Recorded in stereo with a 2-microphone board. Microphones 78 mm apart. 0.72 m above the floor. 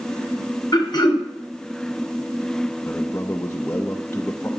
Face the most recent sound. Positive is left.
turn(degrees=35)  # may be behind; listen again after turning